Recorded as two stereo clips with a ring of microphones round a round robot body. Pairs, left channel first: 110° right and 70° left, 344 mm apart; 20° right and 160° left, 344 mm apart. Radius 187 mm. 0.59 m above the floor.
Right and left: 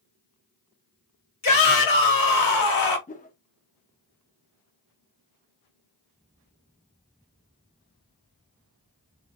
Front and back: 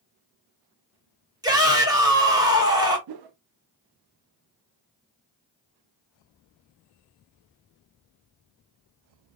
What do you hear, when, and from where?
1.4 s a shout: 125° right, 2.0 m
3.1 s a whoosh: straight behind, 0.6 m